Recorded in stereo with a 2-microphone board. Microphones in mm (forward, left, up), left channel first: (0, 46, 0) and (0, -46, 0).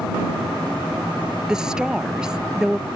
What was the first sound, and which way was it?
A woman speaking, 5° right (ahead or behind).